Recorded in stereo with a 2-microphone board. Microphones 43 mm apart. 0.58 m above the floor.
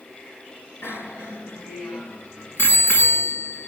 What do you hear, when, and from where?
0.8 s a bicycle bell: 85° left, 4.5 m